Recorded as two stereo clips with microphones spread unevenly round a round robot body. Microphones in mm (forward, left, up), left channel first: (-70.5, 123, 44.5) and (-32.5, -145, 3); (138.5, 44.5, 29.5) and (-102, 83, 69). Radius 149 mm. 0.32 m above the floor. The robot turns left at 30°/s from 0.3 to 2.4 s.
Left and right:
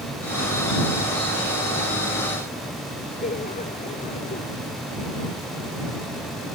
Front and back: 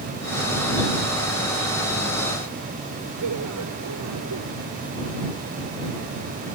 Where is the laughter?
160° left.